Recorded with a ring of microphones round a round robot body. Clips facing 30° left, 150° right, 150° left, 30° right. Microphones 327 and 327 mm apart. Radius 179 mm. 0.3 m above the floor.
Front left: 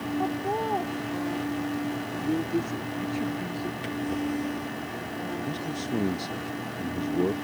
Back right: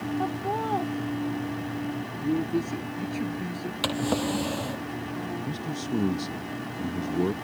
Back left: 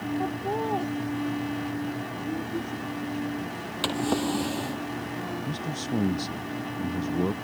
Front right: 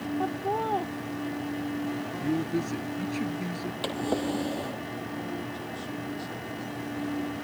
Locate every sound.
0.2 s laughter: 95° right
2.2 s a man speaking: 75° right
3.8 s a drawer: 140° right
5.5 s a man speaking: 135° left